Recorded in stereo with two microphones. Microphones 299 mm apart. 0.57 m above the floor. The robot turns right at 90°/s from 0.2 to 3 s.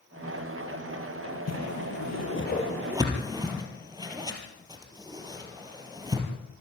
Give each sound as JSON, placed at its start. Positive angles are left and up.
{"t": 1.5, "sound": "a whoosh", "side_deg": 55, "distance_m": 3.5}